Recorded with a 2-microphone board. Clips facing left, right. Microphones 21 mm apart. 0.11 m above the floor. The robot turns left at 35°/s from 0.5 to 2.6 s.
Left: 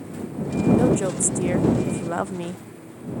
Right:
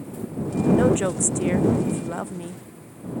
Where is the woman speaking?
150° right; by 2.6 s 145° left.